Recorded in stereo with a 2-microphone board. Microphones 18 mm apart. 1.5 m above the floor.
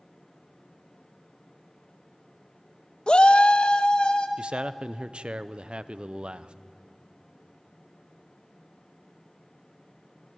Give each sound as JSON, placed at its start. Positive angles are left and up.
{"t": 3.1, "sound": "a shout", "side_deg": 50, "distance_m": 0.6}
{"t": 4.4, "sound": "a man speaking", "side_deg": -80, "distance_m": 0.6}